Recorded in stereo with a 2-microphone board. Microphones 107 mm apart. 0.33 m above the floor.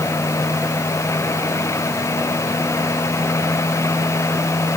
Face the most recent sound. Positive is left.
No sound to turn to.